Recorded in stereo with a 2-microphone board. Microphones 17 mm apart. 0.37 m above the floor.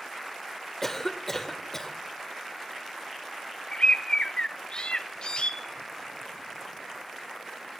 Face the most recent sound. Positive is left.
turn(degrees=60)  # may be behind; listen again after turning